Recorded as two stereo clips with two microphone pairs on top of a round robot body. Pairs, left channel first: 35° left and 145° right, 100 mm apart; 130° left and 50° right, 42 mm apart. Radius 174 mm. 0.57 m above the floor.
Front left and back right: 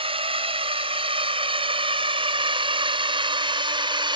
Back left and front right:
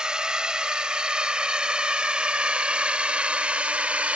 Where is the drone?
120° right; by 4.2 s 110° right.